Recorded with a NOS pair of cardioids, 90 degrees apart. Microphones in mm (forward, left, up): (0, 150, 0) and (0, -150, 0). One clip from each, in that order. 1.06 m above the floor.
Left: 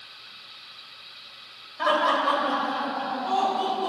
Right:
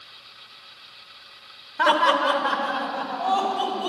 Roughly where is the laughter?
Ahead right.